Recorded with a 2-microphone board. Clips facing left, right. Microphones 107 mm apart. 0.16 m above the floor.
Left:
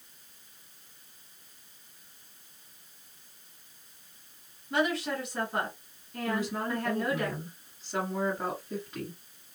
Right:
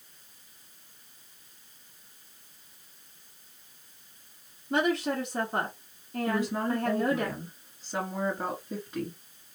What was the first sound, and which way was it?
A woman speaking, 30° right (ahead or behind).